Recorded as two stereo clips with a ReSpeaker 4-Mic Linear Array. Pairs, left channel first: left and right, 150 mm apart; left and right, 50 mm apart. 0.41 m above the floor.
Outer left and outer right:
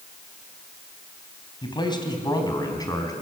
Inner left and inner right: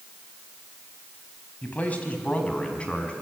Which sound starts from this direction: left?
A man speaking, at 1.6 s.